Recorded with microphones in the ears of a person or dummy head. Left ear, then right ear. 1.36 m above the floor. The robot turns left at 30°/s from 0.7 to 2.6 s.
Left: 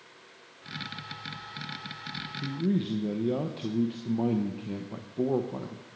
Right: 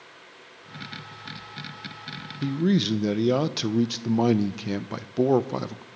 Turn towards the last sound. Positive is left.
turn(degrees=-70)  # may be behind; listen again after turning